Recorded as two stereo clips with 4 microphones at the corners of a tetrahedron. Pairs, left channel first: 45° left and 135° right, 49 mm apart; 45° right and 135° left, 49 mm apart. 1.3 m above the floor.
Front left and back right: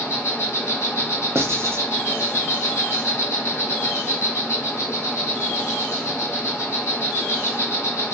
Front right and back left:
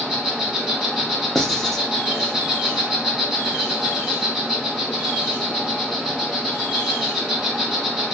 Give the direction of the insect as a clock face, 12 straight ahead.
10 o'clock.